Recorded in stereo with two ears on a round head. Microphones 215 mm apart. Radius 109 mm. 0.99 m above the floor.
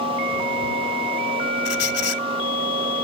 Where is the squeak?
65° left (ahead or behind).